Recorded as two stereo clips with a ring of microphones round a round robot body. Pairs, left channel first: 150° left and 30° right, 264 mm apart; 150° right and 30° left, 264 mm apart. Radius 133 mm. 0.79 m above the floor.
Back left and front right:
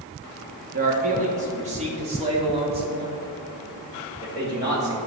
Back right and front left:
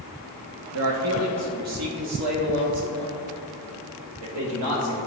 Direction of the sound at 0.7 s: 20° left.